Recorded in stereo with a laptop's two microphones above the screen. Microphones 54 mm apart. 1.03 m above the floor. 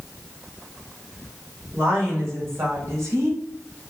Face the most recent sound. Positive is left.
turn(degrees=-70)  # may be behind; listen again after turning